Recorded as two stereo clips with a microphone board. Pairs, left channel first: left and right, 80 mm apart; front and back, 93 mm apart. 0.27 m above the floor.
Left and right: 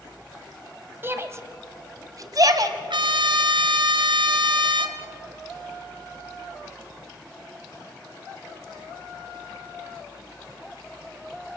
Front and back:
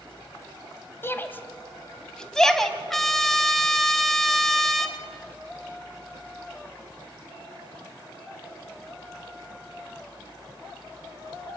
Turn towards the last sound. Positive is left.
turn(degrees=-85)